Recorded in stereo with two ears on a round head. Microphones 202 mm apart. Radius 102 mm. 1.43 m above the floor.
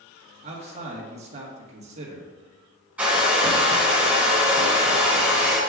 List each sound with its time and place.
0.4 s a man speaking: 30° right (ahead or behind), 1.5 m
3.0 s a hair dryer: 5° right (ahead or behind), 2.5 m